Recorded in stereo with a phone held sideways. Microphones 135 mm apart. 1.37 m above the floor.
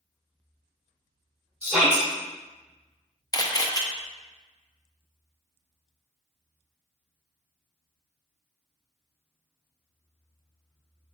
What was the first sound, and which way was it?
A shout, centre (ahead or behind).